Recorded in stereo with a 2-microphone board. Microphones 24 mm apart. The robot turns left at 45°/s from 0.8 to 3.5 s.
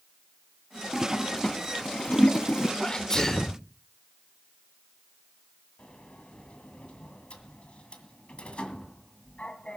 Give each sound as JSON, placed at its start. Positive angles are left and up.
{"t": 0.9, "sound": "a toilet flushing", "side_deg": 5, "distance_m": 0.5}
{"t": 2.8, "sound": "a sneeze", "azimuth_deg": 55, "distance_m": 1.0}
{"t": 5.8, "sound": "a sliding door", "side_deg": 50, "distance_m": 1.9}